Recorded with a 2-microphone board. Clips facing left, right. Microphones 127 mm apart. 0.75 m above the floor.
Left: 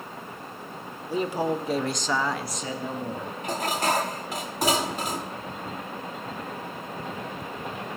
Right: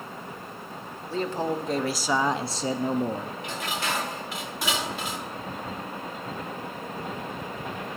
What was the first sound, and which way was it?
A man speaking, 15° left (ahead or behind).